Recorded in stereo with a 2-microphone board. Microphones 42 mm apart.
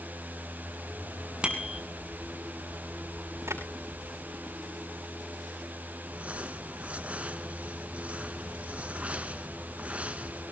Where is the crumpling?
30° right (ahead or behind), 1.6 m.